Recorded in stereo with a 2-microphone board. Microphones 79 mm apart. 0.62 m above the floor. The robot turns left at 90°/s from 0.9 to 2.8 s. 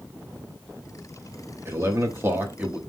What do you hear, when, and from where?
1.6 s a man speaking: 60° right, 1.0 m; by 2.8 s 165° right, 1.0 m